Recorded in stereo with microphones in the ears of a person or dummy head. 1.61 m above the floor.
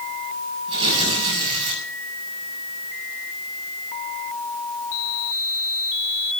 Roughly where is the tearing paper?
Right.